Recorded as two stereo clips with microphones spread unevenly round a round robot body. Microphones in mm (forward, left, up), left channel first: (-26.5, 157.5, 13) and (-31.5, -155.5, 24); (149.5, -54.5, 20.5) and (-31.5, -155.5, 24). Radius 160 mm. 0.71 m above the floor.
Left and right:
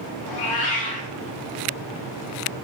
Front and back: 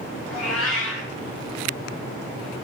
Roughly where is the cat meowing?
Left.